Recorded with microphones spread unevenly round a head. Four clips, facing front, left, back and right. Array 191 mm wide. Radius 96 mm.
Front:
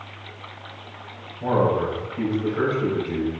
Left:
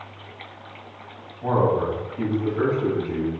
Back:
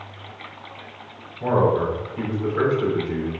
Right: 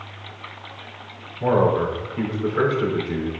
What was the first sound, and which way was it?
A man speaking, 100° right.